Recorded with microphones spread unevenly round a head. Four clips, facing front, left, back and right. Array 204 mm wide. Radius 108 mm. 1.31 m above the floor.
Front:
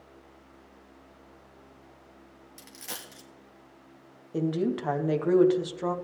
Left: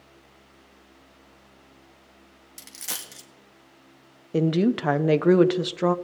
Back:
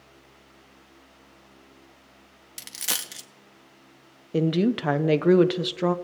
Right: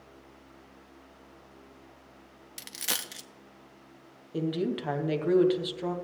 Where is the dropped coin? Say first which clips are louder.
Right 3 dB, back 6 dB; 155° right, 0.8 m.